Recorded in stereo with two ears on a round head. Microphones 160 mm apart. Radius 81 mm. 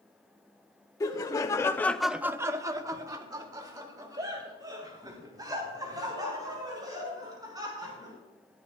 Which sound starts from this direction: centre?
Laughter, at 1.0 s.